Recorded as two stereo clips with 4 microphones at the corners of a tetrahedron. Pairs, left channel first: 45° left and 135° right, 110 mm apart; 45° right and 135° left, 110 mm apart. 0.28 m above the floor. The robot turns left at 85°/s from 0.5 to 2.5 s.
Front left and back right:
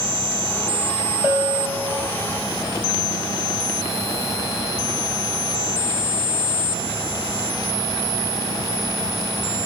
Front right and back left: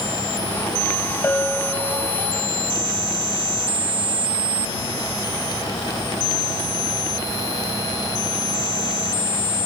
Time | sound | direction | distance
1.2 | a bell | 85° right | 0.9 m